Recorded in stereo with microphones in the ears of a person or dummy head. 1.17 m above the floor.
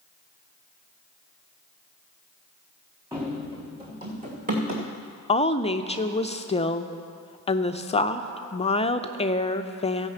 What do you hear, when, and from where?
3.1 s running footsteps: 10° right (ahead or behind), 3 m; by 4.9 s 45° right (ahead or behind), 3 m
5.3 s a woman speaking: 20° left (ahead or behind), 0.5 m